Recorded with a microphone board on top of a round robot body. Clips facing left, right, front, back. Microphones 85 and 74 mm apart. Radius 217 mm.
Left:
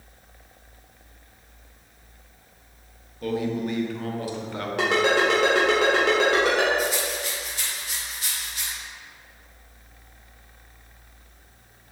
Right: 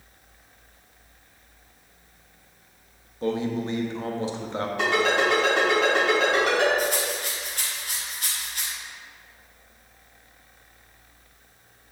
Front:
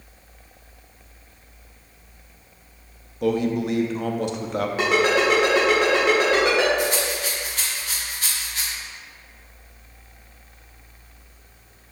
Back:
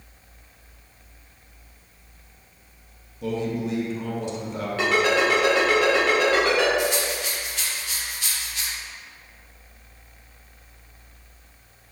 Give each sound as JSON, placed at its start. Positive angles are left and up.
{"t": 3.2, "sound": "a man speaking", "azimuth_deg": -25, "distance_m": 1.0}
{"t": 4.8, "sound": "a ringtone", "azimuth_deg": 75, "distance_m": 1.7}
{"t": 6.8, "sound": "a rattle", "azimuth_deg": -50, "distance_m": 1.0}